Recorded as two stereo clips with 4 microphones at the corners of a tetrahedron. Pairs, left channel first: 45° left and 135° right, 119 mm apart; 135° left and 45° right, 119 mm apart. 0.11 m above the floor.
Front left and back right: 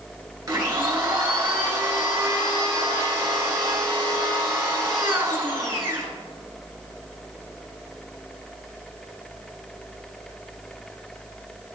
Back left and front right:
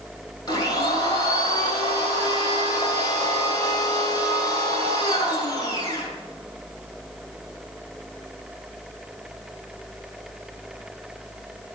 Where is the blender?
170° left, 2.5 m.